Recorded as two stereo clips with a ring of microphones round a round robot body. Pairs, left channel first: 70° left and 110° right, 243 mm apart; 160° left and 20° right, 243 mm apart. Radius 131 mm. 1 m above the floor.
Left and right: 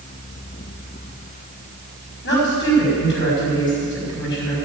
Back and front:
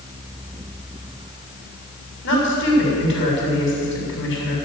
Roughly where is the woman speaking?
Behind left.